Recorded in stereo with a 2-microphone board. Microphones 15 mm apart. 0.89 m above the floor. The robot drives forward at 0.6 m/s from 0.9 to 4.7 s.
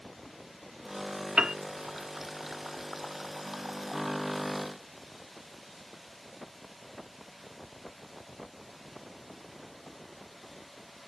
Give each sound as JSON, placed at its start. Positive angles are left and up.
{"t": 1.4, "sound": "a piano", "side_deg": -65}